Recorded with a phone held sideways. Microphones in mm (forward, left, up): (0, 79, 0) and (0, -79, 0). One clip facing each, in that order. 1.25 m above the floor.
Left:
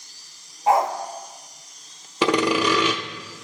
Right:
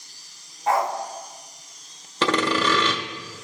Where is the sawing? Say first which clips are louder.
Left 2 dB; 15° left (ahead or behind), 0.7 m.